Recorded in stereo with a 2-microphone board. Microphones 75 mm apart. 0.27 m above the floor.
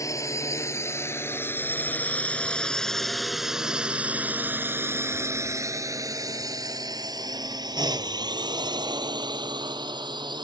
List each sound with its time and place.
0.0 s a drone: 45° left (ahead or behind); by 10.4 s 75° right (ahead or behind)